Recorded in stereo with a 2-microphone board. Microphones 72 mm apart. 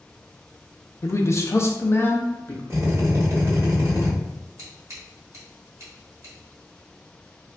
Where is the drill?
35° right (ahead or behind), 1.5 m.